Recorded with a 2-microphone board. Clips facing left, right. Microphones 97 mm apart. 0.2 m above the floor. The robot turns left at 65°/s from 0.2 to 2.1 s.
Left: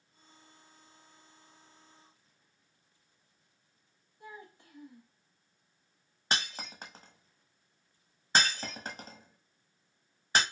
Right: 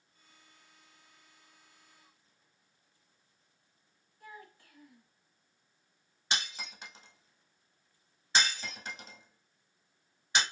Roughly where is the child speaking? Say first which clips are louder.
Left 2 dB; left.